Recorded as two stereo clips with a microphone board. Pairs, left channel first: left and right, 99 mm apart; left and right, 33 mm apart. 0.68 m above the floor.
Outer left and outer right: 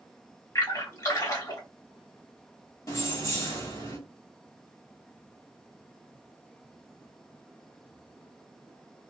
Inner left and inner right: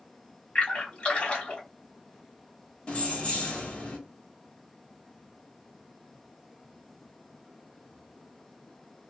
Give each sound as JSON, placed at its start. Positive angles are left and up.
{"t": 0.6, "sound": "a splash", "side_deg": 30, "distance_m": 1.6}
{"t": 2.9, "sound": "keys jangling", "side_deg": 35, "distance_m": 1.1}